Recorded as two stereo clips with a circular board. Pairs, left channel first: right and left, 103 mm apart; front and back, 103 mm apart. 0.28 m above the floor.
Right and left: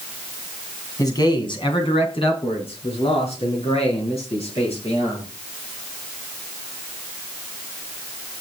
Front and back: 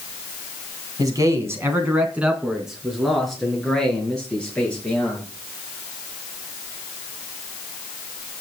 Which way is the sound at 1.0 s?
135° right.